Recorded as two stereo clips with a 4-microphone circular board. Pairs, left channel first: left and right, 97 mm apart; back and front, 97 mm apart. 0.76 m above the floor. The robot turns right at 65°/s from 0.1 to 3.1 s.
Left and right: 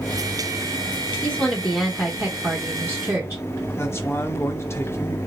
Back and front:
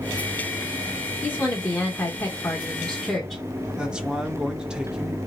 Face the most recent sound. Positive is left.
turn(degrees=70)